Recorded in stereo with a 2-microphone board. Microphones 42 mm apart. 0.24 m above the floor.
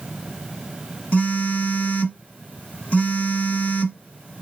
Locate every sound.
1.1 s a phone buzzing: 35° left (ahead or behind), 1.5 m